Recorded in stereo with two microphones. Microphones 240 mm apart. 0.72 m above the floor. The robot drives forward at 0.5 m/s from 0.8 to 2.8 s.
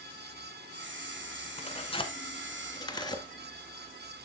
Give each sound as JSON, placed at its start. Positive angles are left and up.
{"t": 1.6, "sound": "tearing paper", "side_deg": 25, "distance_m": 1.1}